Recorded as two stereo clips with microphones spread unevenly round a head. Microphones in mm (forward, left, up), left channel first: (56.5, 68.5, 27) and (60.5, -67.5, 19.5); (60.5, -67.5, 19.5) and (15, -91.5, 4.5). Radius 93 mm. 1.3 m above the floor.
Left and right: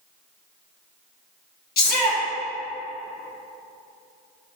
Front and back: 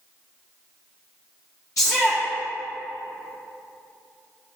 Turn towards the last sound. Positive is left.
turn(degrees=95)